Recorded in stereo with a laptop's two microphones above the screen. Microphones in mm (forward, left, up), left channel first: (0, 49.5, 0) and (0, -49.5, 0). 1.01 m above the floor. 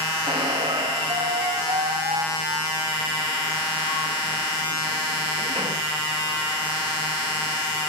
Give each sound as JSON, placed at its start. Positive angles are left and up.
{"t": 0.3, "sound": "a squeak", "side_deg": -65, "distance_m": 1.1}